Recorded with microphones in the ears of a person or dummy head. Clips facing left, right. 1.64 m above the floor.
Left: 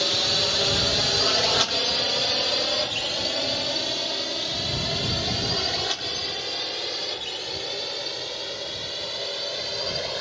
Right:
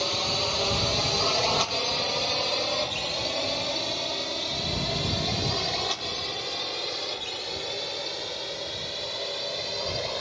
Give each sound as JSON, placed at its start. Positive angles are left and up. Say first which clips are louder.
{"t": 0.0, "sound": "a drone", "louder": "left 2 dB", "side_deg": 15}